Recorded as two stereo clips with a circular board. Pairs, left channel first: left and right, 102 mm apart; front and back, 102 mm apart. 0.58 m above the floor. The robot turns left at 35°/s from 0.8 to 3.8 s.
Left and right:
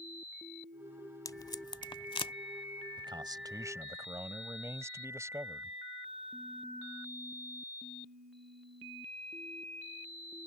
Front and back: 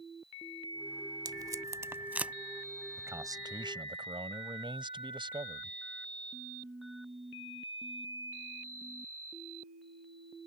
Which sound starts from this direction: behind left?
Tape being pulled, at 1.2 s.